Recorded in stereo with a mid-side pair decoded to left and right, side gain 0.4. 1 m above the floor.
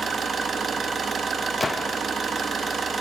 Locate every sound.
0.0 s an engine running: 50° right, 0.8 m
1.6 s a gunshot: 25° left, 0.5 m